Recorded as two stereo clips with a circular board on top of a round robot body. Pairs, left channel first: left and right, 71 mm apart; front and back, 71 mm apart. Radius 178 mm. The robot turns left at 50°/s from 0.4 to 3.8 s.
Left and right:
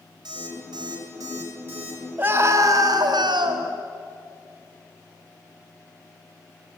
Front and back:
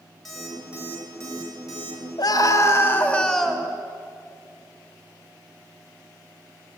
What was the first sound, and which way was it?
An alarm clock, 90° right.